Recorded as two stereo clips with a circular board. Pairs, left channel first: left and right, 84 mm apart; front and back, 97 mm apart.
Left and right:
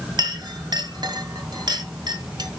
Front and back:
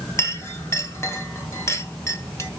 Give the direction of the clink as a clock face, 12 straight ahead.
2 o'clock.